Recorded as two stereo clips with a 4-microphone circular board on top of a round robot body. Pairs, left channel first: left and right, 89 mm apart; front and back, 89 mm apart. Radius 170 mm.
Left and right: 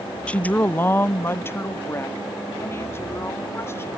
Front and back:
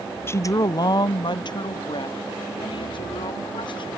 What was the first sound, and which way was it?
A woman speaking, 25° left.